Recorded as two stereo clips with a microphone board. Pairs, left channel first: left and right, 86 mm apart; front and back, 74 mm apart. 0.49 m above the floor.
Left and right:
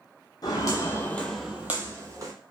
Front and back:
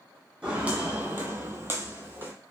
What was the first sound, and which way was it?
Footsteps, 105° left.